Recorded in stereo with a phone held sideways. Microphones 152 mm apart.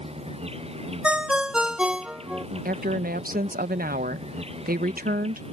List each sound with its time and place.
0.0 s an insect: 40° right (ahead or behind)
1.0 s a ringtone: 5° right (ahead or behind)
2.6 s a woman speaking: 75° right (ahead or behind)